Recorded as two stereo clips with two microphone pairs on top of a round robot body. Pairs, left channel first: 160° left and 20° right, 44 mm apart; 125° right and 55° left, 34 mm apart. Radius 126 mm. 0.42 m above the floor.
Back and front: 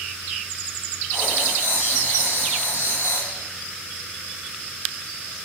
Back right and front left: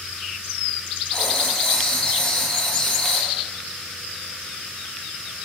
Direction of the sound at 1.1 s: 155° left.